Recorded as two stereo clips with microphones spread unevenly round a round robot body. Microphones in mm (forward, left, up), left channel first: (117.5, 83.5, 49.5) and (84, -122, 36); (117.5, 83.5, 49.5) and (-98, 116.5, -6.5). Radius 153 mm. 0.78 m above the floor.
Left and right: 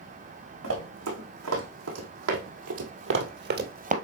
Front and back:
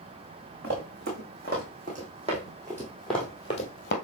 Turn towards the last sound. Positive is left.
turn(degrees=-45)